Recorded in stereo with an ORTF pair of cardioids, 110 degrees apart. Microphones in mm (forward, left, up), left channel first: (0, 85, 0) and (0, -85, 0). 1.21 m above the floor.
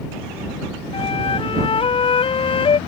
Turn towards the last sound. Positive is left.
turn(degrees=30)